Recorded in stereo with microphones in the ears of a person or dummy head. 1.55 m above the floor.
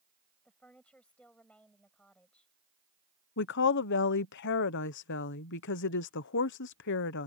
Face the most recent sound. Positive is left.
turn(degrees=55)  # may be behind; listen again after turning